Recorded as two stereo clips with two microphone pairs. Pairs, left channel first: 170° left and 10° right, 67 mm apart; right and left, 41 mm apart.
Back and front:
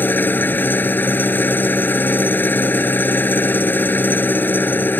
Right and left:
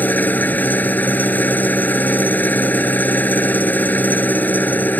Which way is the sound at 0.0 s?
130° right.